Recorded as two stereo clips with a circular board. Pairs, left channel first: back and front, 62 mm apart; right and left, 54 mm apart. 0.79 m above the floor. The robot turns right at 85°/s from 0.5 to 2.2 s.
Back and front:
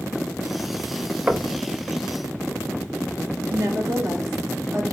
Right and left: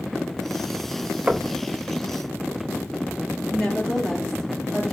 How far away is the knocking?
About 0.6 m.